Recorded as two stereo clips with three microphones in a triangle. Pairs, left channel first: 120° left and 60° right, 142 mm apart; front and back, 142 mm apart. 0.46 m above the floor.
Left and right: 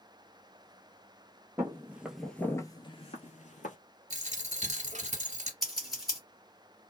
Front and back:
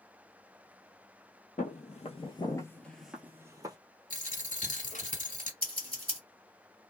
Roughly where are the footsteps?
Ahead.